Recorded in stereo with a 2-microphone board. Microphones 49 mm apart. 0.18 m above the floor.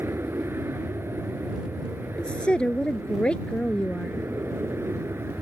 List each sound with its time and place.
0.0 s an aircraft: 60° right (ahead or behind)
2.2 s a woman speaking: 20° left (ahead or behind)